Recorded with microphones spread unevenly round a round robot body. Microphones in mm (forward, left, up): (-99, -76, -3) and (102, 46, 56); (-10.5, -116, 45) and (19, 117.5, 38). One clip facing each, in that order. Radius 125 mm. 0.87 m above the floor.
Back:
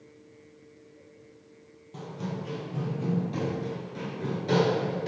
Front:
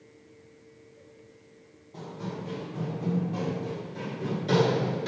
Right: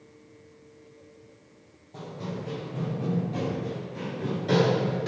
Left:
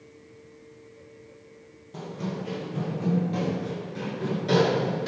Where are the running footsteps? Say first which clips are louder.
Back 1 dB, left 3 dB; 155° left, 1.6 m; by 5.1 s 15° right, 1.0 m.